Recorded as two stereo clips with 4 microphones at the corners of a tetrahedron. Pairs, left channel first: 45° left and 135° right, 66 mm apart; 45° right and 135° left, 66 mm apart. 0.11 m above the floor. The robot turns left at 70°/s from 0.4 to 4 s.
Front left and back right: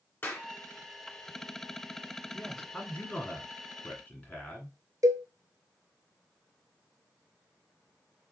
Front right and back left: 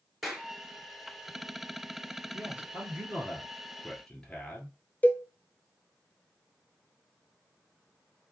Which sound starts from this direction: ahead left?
A clap, at 0.2 s.